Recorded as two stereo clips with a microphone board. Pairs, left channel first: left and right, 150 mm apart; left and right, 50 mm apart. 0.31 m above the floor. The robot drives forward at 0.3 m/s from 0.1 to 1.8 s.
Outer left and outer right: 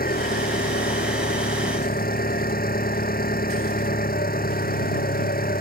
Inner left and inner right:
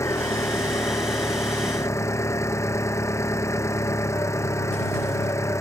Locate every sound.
0.0 s an engine running: 85° left